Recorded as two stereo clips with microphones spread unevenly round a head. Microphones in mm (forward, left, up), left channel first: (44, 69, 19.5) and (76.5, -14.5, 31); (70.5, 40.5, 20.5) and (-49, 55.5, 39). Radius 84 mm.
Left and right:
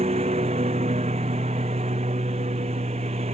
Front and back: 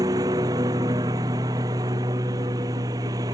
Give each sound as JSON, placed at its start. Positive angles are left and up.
{"t": 0.0, "sound": "a lawn mower", "azimuth_deg": -120}